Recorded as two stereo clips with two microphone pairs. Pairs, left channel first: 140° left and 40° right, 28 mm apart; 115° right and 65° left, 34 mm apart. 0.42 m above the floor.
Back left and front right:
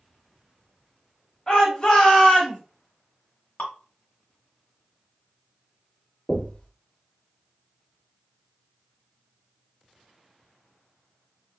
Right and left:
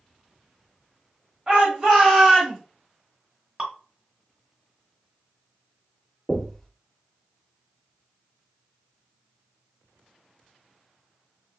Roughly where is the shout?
Left.